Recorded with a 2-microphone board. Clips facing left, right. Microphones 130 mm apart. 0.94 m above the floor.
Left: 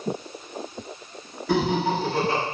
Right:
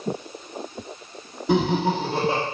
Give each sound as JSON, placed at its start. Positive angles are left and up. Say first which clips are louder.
{"t": 1.5, "sound": "laughter", "louder": "right 2 dB", "side_deg": -20, "distance_m": 0.9}